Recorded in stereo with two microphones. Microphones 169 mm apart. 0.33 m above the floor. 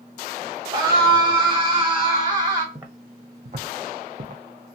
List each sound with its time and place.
0.7 s a scream: 25° right (ahead or behind), 1.6 m
2.8 s footsteps: 20° right (ahead or behind), 1.0 m; by 4.4 s 55° right (ahead or behind), 0.8 m